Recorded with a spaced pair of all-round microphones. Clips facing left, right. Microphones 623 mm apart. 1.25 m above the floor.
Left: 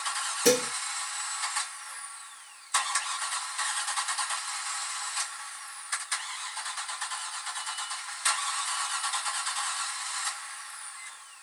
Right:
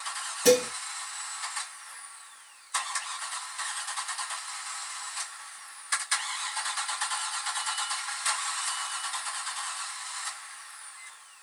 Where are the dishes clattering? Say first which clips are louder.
Right 3 dB; 10° right (ahead or behind), 0.7 m.